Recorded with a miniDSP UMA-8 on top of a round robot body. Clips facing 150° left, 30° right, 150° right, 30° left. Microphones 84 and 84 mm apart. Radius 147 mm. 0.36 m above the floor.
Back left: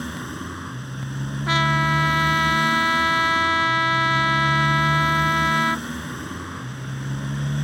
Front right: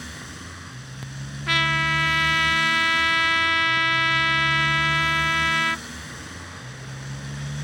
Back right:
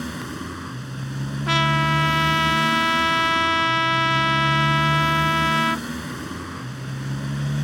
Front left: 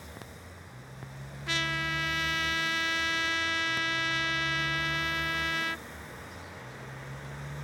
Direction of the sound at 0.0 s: 165° right.